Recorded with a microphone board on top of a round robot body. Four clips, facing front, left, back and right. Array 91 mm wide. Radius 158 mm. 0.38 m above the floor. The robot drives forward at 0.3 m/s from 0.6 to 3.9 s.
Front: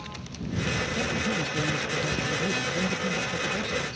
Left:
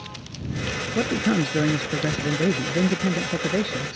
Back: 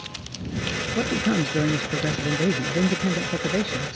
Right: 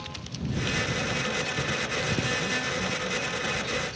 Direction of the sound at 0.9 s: 120° left.